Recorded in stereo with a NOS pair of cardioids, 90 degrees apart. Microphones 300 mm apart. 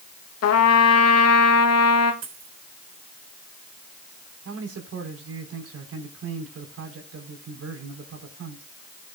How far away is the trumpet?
About 2 m.